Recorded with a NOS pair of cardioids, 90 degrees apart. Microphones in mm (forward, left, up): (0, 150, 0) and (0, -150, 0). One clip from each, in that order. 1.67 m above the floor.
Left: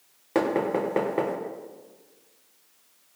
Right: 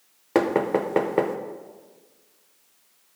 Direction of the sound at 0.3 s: 30° right.